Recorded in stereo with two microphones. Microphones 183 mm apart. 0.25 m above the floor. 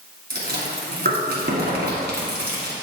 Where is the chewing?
65° right (ahead or behind), 1.9 m.